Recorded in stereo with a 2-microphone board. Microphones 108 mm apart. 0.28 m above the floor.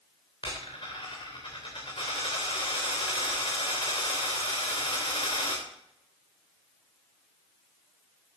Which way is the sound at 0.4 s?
45° left (ahead or behind).